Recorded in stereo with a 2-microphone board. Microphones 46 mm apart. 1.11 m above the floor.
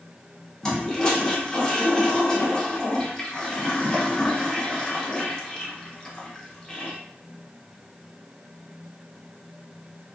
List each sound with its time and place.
0.6 s a toilet flushing: 15° left (ahead or behind), 0.6 m